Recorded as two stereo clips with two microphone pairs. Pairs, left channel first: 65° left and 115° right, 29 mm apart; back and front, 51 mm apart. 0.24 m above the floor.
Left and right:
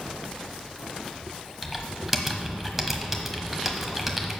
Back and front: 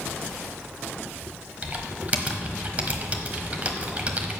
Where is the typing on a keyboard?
35° right, 1.1 m.